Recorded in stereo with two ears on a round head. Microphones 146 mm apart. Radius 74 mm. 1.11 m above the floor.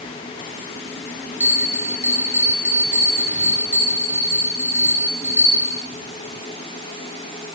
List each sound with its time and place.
1.4 s a bell: 15° left (ahead or behind), 7.5 m